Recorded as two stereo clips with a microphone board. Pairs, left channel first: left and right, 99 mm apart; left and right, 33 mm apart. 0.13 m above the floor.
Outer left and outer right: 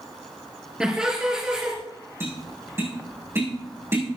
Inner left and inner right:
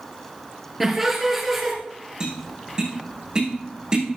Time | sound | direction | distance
0.8 | laughter | 10° right (ahead or behind) | 3 m
2.2 | tapping | 25° right (ahead or behind) | 6.5 m